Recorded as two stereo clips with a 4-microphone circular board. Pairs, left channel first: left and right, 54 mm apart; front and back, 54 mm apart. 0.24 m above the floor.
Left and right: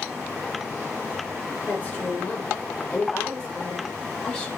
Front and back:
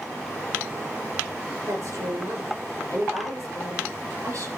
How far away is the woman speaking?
About 9 m.